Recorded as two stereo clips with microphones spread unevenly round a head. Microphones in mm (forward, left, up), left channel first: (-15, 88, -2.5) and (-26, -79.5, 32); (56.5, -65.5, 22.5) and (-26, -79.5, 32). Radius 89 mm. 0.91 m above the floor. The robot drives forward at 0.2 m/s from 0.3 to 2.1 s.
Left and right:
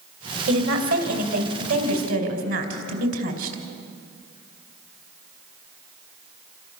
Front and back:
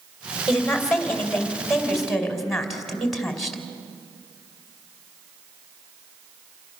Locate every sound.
0.5 s a woman speaking: 75° right, 4.5 m; by 3.6 s 80° right, 4.5 m